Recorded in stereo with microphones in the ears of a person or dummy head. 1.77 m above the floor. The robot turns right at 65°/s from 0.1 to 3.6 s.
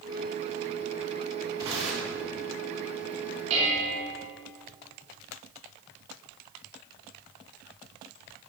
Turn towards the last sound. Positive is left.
turn(degrees=-35)  # may be behind; listen again after turning